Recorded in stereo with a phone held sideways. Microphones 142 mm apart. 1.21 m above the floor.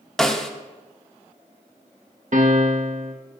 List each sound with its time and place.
0.2 s a snare drum: 5° left (ahead or behind), 0.9 m
2.3 s a piano: 60° right (ahead or behind), 1.3 m